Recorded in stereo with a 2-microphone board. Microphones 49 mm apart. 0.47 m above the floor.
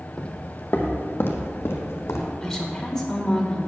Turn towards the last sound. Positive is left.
turn(degrees=10)  # may be behind; listen again after turning